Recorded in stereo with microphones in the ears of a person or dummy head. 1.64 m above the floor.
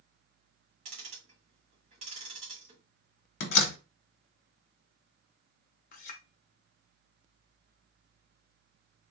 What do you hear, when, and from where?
0.8 s ticking: 40° right (ahead or behind), 1.8 m
3.4 s a door slam: 60° left (ahead or behind), 1.2 m
5.9 s a clink: 55° left (ahead or behind), 0.9 m